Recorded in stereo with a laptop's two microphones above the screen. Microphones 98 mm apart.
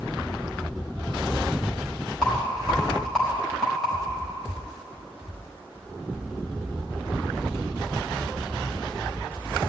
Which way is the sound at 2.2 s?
5° left (ahead or behind).